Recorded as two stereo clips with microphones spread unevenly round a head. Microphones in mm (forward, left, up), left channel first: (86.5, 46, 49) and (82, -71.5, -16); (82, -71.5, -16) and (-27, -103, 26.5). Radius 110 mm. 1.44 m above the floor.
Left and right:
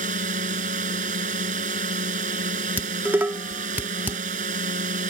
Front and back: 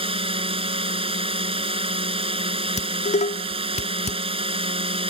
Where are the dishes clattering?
10° right.